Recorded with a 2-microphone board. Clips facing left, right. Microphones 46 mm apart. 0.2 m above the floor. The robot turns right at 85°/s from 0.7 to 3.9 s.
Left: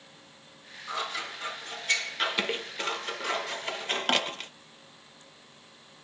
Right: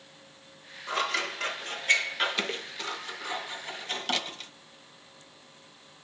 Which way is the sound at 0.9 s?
65° right (ahead or behind).